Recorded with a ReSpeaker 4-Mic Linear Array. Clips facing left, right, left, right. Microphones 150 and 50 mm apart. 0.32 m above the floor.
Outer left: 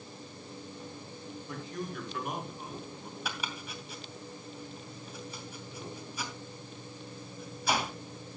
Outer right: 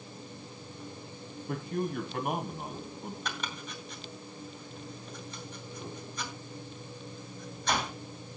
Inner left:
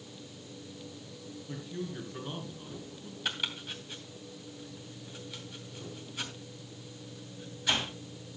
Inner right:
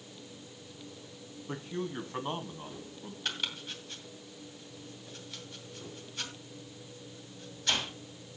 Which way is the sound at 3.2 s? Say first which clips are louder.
Outer right 1 dB, inner left 1 dB; 10° left (ahead or behind).